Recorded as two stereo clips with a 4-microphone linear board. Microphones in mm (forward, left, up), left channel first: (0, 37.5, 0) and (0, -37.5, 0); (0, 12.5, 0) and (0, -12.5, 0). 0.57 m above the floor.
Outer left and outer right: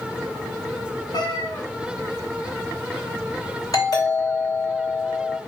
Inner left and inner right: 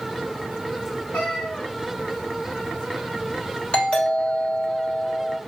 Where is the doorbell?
55° left (ahead or behind), 3 m.